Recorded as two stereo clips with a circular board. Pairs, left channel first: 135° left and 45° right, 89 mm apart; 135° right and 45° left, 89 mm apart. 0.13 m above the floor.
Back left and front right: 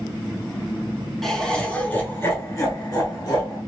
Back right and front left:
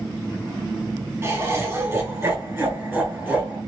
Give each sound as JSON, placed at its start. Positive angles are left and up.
{"t": 1.2, "sound": "laughter", "azimuth_deg": 50, "distance_m": 1.5}